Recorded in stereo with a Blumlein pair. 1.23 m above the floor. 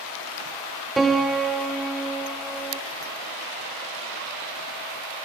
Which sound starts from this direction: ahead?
A piano, at 1.0 s.